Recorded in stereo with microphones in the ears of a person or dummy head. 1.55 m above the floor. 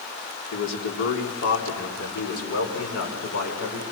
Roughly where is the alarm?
I don't hear an alarm.